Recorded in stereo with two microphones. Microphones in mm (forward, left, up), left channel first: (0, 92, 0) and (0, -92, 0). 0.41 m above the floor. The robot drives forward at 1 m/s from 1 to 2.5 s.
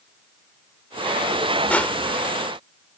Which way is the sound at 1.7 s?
10° left (ahead or behind).